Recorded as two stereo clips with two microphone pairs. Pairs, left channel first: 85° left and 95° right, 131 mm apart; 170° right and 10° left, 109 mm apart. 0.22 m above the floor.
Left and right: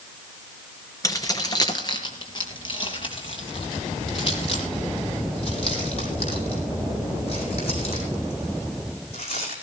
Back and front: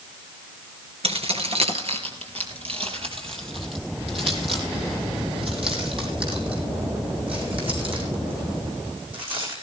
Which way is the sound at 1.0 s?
25° left.